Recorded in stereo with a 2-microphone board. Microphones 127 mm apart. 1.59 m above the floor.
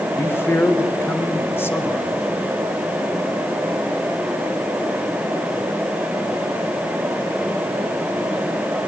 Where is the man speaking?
20° left (ahead or behind), 1.3 m.